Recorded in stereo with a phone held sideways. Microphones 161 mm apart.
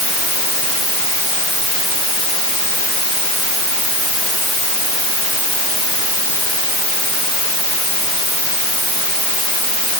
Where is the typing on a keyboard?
No typing on a keyboard in this recording.